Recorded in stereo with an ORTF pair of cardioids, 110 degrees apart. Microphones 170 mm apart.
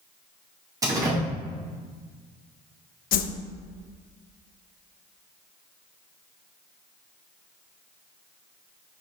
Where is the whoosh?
60° left, 0.8 m.